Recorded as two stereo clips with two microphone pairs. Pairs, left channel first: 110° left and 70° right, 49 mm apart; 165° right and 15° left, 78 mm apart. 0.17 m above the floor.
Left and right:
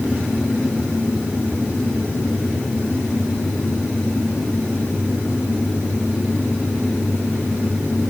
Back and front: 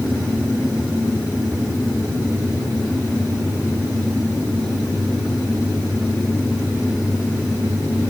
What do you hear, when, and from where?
Only background noise.